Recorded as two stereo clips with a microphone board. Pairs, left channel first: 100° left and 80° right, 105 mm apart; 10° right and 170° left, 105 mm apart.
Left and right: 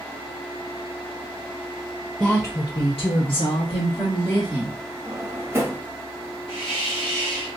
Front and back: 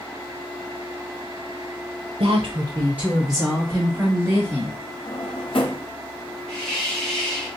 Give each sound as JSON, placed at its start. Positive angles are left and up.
{"t": 2.2, "sound": "a woman speaking", "azimuth_deg": 180, "distance_m": 0.7}
{"t": 5.0, "sound": "a drawer", "azimuth_deg": -15, "distance_m": 0.9}
{"t": 6.5, "sound": "a hiss", "azimuth_deg": 75, "distance_m": 1.7}